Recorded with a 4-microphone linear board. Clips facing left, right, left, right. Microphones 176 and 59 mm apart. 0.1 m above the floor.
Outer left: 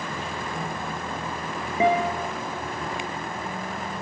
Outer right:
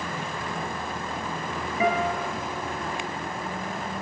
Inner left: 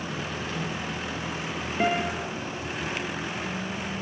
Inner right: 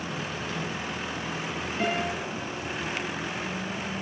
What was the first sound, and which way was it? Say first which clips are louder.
A guitar: outer left 3 dB, inner left 3 dB; 25° left (ahead or behind).